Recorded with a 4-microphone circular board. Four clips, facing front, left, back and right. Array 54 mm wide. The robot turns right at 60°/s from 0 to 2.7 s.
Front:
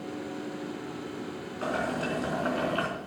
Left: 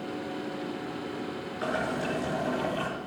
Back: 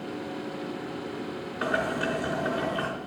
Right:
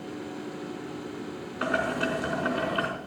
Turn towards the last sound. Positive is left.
turn(degrees=-45)